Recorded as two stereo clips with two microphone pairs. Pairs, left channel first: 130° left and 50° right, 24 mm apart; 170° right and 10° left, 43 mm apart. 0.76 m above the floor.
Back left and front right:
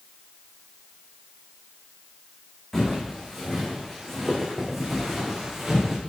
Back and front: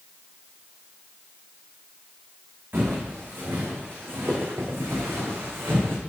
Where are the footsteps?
50° left, 4 m; by 6.0 s 25° left, 3.5 m.